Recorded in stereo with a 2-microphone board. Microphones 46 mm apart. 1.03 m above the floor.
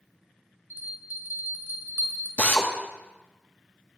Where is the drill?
40° left (ahead or behind), 1.2 m.